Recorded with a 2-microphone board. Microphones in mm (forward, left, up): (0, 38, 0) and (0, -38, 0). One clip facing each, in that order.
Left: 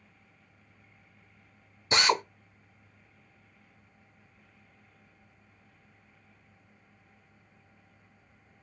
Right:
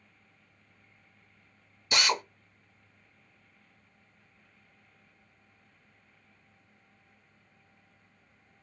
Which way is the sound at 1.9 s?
25° left (ahead or behind).